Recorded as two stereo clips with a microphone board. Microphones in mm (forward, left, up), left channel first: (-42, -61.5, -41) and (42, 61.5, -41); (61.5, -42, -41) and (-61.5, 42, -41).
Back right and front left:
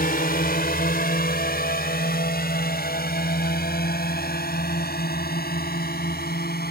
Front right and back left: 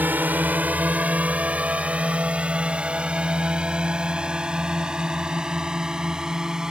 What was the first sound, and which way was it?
A drone, 135° right.